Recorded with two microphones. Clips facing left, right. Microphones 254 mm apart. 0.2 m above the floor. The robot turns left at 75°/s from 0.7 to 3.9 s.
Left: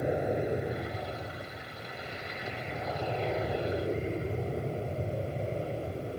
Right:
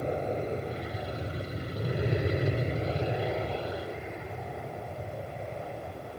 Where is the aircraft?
10° left (ahead or behind); by 6.2 s 35° left (ahead or behind).